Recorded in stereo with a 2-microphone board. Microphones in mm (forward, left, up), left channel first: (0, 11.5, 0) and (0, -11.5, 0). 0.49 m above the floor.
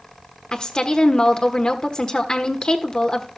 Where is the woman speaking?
35° left (ahead or behind), 1.2 m.